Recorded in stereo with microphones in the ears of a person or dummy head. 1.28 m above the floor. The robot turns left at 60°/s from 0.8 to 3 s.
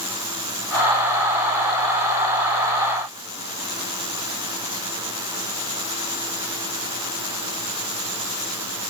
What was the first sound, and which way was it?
Only background noise.